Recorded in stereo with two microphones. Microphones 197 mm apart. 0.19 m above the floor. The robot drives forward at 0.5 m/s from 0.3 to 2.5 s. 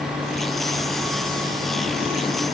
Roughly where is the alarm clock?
I don't hear an alarm clock.